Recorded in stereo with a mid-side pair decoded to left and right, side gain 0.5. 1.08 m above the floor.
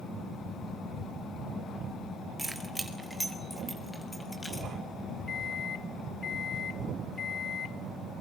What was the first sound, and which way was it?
Keys jangling, 15° right.